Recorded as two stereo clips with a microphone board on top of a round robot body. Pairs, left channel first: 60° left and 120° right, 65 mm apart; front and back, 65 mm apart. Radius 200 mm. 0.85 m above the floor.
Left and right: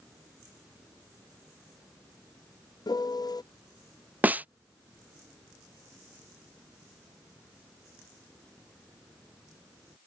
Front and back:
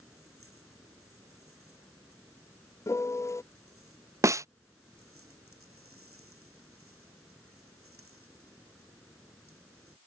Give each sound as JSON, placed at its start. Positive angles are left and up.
{"t": 2.9, "sound": "a piano", "azimuth_deg": 45}
{"t": 4.2, "sound": "a snare drum", "azimuth_deg": 180}